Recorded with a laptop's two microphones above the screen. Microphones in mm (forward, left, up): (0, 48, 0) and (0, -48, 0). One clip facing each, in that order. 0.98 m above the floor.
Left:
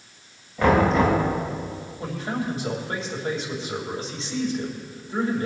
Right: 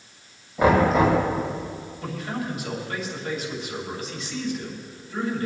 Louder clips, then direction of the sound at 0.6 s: Right 1 dB; 15° right (ahead or behind).